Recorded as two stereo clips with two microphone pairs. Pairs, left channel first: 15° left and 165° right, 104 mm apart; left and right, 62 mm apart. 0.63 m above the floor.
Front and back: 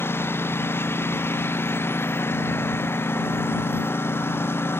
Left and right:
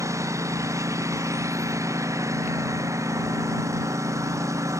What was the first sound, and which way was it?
A lawn mower, 55° right.